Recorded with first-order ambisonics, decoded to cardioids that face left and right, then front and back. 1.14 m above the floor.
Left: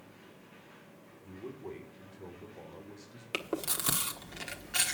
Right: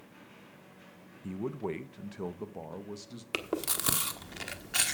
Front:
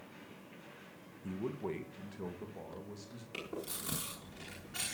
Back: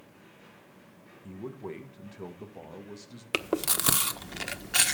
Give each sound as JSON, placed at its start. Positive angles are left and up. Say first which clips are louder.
{"t": 1.2, "sound": "a man speaking", "louder": "right 8 dB, even", "azimuth_deg": -80, "distance_m": 1.1}
{"t": 3.3, "sound": "chewing", "louder": "right 1 dB, back 14 dB", "azimuth_deg": -170, "distance_m": 1.1}